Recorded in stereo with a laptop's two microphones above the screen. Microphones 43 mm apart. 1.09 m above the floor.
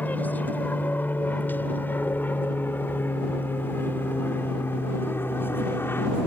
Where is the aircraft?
45° left (ahead or behind); by 6.3 s 65° left (ahead or behind).